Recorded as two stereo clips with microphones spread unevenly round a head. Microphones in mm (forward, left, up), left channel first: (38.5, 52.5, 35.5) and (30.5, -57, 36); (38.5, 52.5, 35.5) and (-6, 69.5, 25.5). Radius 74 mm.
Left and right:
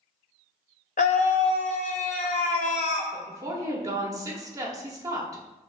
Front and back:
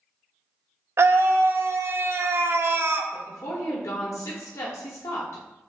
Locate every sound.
1.0 s a scream: 125° left, 0.6 m
3.1 s a woman speaking: 35° right, 1.0 m